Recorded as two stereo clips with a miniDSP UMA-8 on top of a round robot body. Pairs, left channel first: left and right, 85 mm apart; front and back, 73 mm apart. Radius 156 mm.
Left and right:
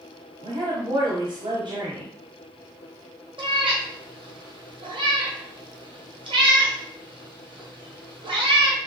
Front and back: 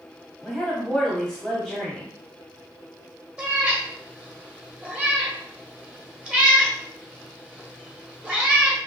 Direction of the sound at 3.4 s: 105° right.